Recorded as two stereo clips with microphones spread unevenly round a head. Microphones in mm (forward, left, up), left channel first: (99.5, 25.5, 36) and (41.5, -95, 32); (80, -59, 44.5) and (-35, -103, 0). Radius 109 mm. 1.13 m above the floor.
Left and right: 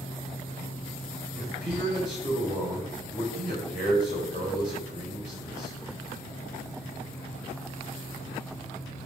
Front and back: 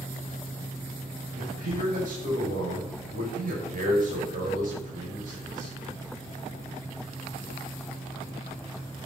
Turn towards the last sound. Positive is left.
turn(degrees=180)